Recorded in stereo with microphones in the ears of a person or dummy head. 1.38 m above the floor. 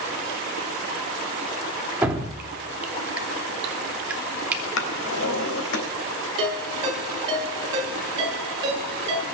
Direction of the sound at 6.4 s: 30° right (ahead or behind).